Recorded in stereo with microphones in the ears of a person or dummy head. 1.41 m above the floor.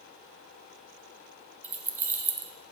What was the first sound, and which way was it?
Keys jangling, 15° right (ahead or behind).